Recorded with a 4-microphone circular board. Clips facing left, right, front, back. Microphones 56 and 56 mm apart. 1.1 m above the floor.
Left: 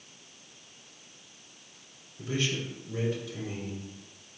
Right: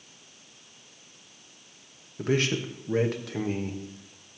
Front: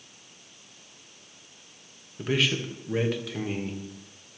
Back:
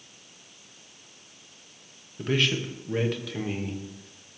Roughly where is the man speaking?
Right.